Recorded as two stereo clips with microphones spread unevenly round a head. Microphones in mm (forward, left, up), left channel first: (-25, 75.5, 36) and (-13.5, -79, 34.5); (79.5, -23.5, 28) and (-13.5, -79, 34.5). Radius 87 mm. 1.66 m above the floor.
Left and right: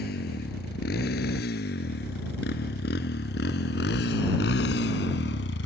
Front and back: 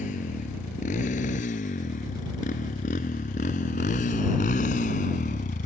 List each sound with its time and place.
0.0 s a motorcycle: 60° left; by 5.7 s 70° left